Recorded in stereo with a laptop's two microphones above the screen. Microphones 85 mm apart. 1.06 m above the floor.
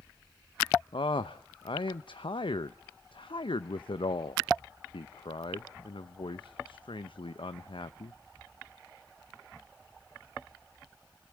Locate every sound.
0.9 s a man speaking: 75° left (ahead or behind), 0.6 m